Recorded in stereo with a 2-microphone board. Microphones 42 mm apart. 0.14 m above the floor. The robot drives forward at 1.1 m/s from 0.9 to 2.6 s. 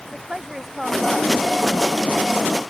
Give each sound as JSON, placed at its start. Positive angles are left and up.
{"t": 0.1, "sound": "a woman speaking", "side_deg": -10}